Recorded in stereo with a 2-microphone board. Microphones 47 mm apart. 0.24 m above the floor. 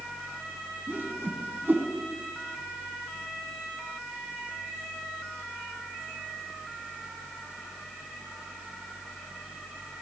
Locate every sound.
0.9 s a whoosh: 50° right (ahead or behind), 0.8 m